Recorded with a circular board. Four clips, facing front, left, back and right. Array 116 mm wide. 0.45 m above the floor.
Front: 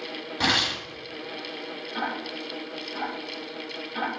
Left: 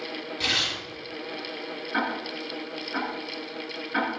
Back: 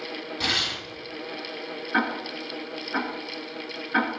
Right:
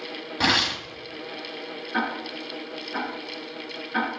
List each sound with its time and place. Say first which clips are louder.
0.4 s tearing paper: right 10 dB, front 6 dB; 65° right, 2.0 m
1.9 s ticking: right 1 dB, back 5 dB; 175° left, 6 m